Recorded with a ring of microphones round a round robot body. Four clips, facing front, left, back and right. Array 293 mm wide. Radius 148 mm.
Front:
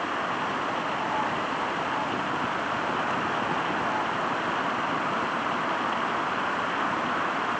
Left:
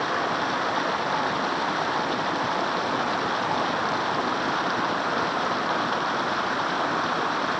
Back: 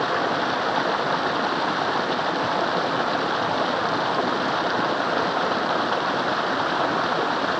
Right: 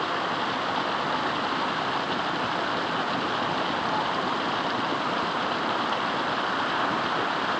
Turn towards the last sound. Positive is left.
turn(degrees=175)